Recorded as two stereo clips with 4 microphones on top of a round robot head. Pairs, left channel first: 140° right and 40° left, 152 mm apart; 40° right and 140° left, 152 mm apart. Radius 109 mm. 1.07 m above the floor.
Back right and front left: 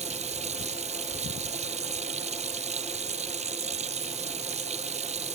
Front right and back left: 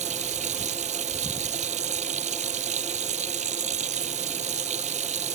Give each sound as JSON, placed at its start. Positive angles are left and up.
{"t": 0.0, "sound": "running water", "azimuth_deg": 90}